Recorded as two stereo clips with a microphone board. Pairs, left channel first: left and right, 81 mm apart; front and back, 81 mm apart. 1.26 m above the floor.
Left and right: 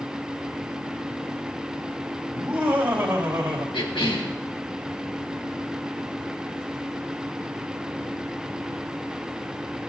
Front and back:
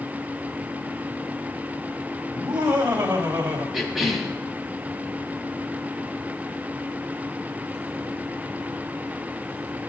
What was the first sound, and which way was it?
Laughter, 155° right.